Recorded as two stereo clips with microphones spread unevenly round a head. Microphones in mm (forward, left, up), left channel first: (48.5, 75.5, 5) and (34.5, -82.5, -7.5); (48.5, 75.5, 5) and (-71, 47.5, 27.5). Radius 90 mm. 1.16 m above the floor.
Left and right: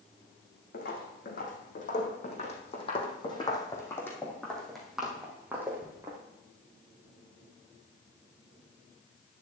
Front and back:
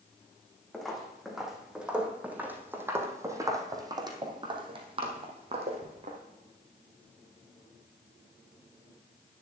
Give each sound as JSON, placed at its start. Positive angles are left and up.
{"t": 0.7, "sound": "footsteps", "azimuth_deg": 105, "distance_m": 2.5}